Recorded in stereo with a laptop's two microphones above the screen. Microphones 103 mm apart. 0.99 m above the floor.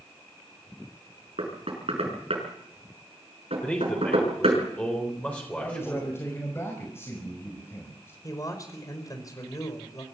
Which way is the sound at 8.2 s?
35° left (ahead or behind).